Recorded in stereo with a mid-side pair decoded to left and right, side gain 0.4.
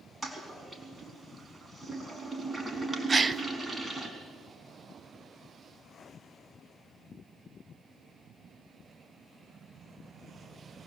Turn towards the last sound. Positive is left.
turn(degrees=-30)